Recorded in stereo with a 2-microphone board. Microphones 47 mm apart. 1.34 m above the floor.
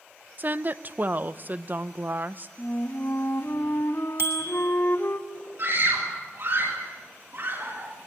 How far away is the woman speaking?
About 0.8 m.